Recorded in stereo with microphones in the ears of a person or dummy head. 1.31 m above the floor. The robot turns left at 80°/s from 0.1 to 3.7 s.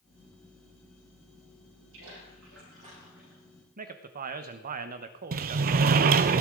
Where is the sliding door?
45° right (ahead or behind), 0.5 m.